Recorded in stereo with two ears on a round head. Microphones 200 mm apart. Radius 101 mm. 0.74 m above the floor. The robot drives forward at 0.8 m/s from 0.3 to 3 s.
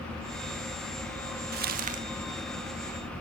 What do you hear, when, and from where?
1.5 s crumpling: 50° right (ahead or behind), 0.9 m; by 2.0 s 35° right (ahead or behind), 1.3 m